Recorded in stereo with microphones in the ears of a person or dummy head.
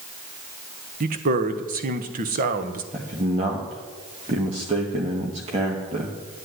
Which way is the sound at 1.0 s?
40° right (ahead or behind).